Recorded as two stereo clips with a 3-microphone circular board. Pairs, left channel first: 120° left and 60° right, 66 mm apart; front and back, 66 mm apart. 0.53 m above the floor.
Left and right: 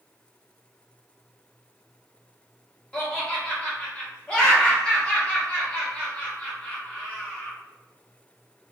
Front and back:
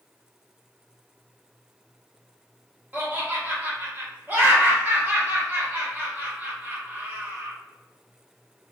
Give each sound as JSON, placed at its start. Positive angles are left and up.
{"t": 2.9, "sound": "laughter", "azimuth_deg": 180, "distance_m": 0.9}